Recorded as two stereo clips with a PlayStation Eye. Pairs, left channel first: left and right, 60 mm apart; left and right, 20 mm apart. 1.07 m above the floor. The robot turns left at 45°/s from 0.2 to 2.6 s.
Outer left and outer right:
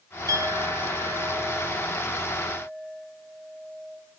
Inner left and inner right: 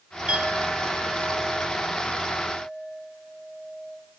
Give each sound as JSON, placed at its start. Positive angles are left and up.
{"t": 0.3, "sound": "a clink", "azimuth_deg": -85, "distance_m": 4.0}